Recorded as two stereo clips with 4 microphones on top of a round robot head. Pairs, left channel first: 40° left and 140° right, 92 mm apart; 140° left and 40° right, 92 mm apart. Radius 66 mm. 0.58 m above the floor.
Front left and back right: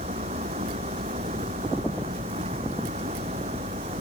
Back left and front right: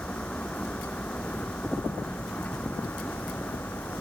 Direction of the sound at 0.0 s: 140° right.